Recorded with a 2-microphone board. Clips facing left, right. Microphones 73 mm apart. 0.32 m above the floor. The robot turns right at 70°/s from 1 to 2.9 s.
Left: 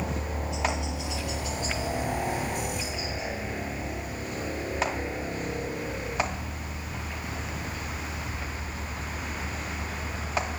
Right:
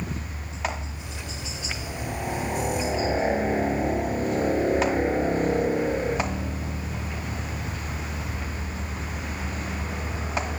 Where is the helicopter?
80° left; by 10.6 s 25° right (ahead or behind).